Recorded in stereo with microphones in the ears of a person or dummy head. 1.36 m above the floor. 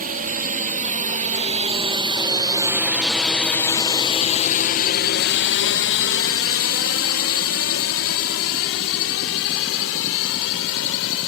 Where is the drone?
50° right (ahead or behind); by 11.3 s 80° left.